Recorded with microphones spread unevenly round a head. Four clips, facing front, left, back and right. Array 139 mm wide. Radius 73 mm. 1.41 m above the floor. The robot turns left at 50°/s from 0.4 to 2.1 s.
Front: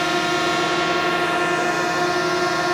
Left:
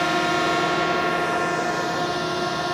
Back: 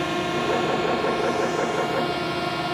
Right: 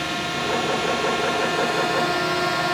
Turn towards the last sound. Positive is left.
turn(degrees=-25)